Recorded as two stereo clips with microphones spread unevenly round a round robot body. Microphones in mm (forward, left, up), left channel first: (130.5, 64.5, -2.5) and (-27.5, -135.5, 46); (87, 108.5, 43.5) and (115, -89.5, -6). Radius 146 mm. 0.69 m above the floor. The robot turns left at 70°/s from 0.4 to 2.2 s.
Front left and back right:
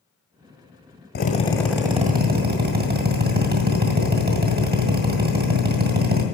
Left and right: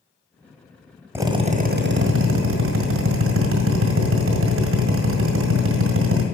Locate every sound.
1.1 s a drill: 5° right, 1.6 m; by 6.2 s 75° right, 1.6 m